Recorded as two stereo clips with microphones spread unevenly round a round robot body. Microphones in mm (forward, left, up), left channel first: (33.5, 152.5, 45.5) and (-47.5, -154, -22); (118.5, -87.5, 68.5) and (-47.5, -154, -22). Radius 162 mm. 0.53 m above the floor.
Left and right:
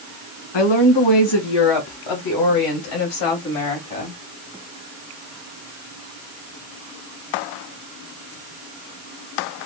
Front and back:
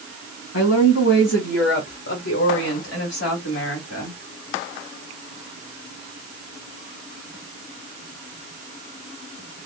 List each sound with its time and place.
0.5 s a woman speaking: 70° left, 1.6 m; by 4.2 s 40° left, 3 m